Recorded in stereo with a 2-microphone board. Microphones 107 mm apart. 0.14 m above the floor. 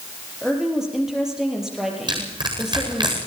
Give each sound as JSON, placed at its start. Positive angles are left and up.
{"t": 0.4, "sound": "a woman speaking", "side_deg": -5, "distance_m": 4.0}
{"t": 2.1, "sound": "crushing", "side_deg": -45, "distance_m": 8.0}